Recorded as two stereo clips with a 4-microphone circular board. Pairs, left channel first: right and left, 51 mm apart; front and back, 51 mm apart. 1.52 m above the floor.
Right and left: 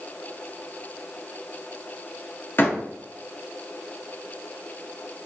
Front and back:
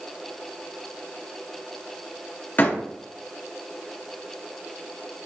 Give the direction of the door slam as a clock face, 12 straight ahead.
2 o'clock.